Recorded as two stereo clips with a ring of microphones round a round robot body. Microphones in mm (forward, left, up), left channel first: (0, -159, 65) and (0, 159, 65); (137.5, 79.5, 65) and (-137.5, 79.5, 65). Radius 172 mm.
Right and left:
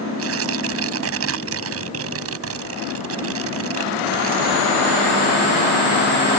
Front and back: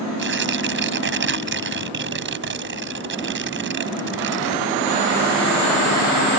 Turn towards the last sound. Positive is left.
turn(degrees=135)